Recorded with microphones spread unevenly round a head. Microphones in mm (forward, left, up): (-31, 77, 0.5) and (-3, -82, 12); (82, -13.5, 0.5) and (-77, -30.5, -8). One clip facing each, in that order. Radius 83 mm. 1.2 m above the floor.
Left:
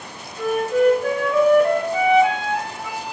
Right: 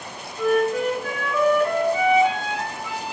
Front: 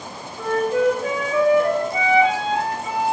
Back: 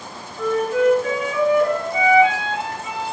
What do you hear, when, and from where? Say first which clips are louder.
0.4 s a flute: left 2 dB, back 1 dB; 60° left, 1.4 m